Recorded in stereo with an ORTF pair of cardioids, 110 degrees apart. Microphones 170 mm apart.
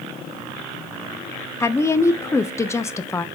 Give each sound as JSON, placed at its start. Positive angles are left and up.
{"t": 1.6, "sound": "a woman speaking", "azimuth_deg": 15, "distance_m": 0.5}